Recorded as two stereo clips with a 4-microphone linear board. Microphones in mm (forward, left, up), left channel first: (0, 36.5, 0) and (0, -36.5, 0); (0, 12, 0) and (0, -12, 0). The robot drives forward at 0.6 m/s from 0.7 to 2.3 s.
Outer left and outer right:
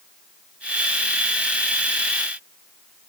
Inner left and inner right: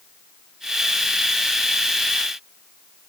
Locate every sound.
Only background noise.